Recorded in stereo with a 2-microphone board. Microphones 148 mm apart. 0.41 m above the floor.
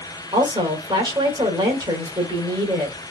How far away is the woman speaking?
About 1.5 m.